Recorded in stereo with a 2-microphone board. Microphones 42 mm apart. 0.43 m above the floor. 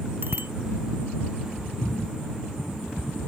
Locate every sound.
0.2 s a bicycle bell: 60° right (ahead or behind)